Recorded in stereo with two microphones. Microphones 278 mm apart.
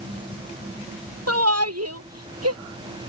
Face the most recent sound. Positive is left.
turn(degrees=-55)  # may be behind; listen again after turning